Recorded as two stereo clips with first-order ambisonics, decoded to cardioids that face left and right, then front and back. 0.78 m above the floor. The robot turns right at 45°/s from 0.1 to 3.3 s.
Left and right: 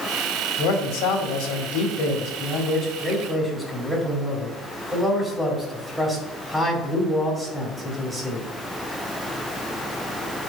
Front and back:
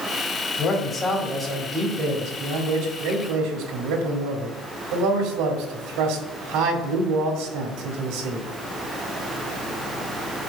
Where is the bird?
No bird in this recording.